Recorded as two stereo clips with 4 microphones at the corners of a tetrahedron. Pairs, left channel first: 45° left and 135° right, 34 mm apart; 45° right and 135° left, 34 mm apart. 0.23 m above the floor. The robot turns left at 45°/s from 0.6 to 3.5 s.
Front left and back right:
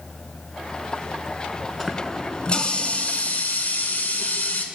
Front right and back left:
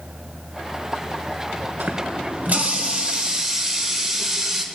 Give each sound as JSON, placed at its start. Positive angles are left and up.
{"t": 1.8, "sound": "a running tap", "azimuth_deg": 135, "distance_m": 2.0}